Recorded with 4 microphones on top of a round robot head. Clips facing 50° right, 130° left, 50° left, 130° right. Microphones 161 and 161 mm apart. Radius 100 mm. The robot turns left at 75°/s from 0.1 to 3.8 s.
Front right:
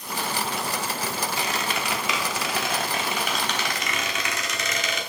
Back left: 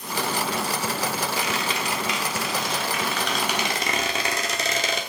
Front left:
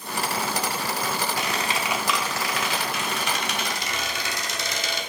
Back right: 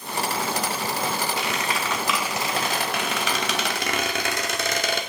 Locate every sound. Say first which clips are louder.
1.4 s a squeak: back left 1 dB, even; 10° left, 1.0 m; by 5.0 s 170° right, 1.0 m